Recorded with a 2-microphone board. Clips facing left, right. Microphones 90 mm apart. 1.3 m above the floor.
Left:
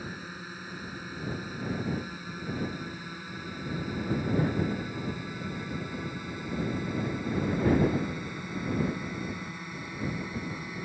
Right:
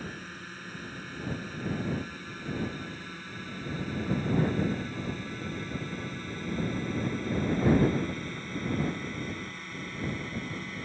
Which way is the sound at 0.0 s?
10° left (ahead or behind).